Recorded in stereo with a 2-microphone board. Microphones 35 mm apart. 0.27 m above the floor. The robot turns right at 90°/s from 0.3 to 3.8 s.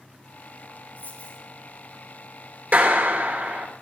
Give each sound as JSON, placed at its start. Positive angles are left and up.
{"t": 1.0, "sound": "a dropped coin", "azimuth_deg": 110, "distance_m": 4.0}
{"t": 2.7, "sound": "a clap", "azimuth_deg": -115, "distance_m": 3.5}